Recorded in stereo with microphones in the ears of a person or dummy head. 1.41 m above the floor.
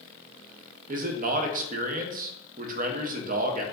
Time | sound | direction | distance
0.9 | a man speaking | 45° right (ahead or behind) | 0.6 m